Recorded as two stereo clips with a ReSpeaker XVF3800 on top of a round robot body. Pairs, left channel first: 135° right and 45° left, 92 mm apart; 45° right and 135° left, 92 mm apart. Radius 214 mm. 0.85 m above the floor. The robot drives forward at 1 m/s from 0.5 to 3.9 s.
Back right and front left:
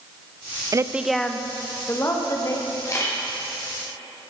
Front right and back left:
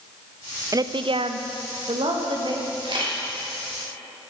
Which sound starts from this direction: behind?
A camera shutter, at 2.9 s.